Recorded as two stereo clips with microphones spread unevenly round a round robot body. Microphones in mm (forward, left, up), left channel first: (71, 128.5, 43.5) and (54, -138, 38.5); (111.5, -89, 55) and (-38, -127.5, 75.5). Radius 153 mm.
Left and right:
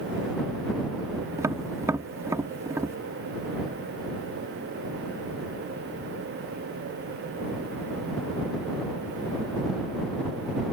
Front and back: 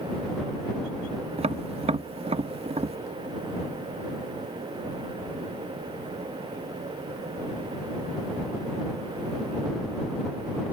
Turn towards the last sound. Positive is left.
turn(degrees=-160)